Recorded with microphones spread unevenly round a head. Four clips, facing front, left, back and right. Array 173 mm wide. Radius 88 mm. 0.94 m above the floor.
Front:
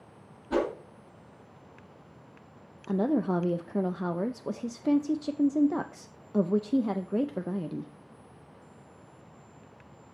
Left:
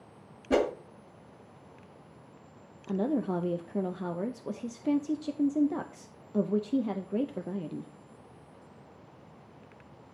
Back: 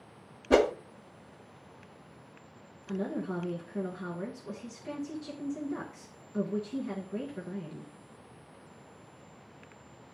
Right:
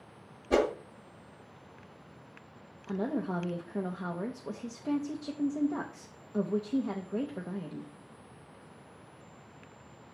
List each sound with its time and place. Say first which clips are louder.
0.5 s a whoosh: even, back 5 dB; 155° left, 1.1 m
2.9 s a woman speaking: left 3 dB, front 8 dB; 10° left, 0.5 m